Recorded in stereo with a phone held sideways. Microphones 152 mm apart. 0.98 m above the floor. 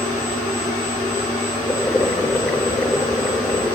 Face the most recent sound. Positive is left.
turn(degrees=10)  # may be behind; listen again after turning